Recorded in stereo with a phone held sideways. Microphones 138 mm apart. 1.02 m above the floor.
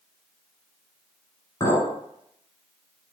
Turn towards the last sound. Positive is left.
turn(degrees=35)  # may be behind; listen again after turning